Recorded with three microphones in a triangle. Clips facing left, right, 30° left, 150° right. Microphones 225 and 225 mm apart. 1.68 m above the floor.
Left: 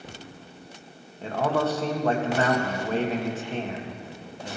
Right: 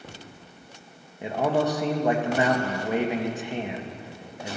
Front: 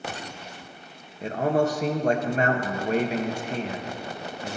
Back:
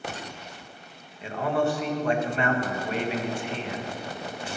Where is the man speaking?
15° right, 1.5 m.